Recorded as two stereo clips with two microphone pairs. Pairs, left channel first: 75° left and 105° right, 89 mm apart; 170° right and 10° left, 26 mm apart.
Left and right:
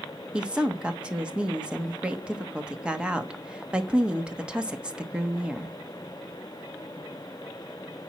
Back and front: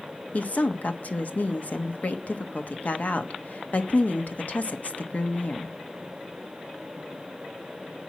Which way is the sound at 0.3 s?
175° left.